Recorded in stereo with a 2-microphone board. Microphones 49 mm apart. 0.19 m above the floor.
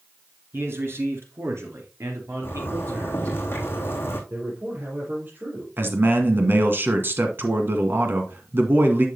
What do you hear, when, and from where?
0.5 s a man speaking: 55° right (ahead or behind), 2.5 m; by 3.4 s 70° right (ahead or behind), 4 m
2.4 s a zipper: 50° left (ahead or behind), 3 m
4.3 s a man speaking: 35° right (ahead or behind), 4 m
5.8 s a man speaking: 45° right (ahead or behind), 1.9 m